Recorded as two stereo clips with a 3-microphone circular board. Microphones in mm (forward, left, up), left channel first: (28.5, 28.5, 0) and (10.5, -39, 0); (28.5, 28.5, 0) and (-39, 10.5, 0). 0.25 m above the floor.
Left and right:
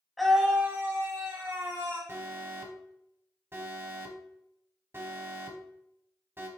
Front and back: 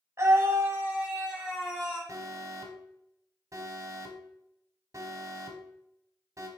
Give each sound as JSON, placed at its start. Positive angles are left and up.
{"t": 0.2, "sound": "a scream", "azimuth_deg": 165, "distance_m": 1.4}
{"t": 2.1, "sound": "an alarm", "azimuth_deg": -150, "distance_m": 1.0}